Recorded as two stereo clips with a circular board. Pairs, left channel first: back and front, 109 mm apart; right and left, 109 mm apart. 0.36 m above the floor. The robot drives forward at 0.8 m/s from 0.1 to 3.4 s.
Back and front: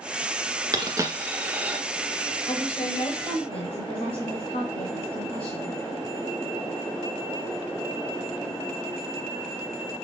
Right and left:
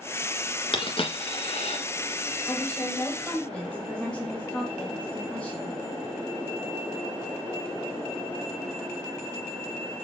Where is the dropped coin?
50° right, 1.8 m; by 1.8 s 80° right, 1.4 m.